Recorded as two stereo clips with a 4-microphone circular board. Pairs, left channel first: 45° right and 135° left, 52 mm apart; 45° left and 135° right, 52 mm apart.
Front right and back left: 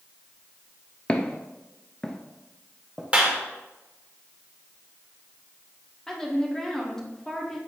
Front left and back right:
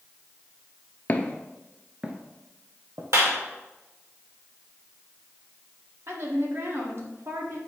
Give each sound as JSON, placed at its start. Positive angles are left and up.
{"t": 1.1, "sound": "footsteps", "azimuth_deg": 10, "distance_m": 0.8}
{"t": 3.1, "sound": "a clap", "azimuth_deg": -160, "distance_m": 1.7}
{"t": 6.1, "sound": "a woman speaking", "azimuth_deg": -125, "distance_m": 1.5}